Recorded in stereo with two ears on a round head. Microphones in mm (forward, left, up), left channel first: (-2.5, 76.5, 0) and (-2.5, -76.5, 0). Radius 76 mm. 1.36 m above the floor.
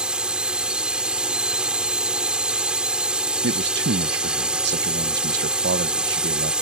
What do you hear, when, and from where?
0.0 s a drone: 5° right (ahead or behind)
3.4 s a man speaking: 70° right (ahead or behind)